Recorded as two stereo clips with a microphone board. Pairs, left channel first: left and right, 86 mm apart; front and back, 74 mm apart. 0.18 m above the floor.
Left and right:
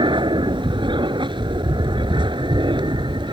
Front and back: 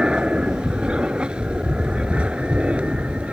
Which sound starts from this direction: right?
An aircraft, at 0.0 s.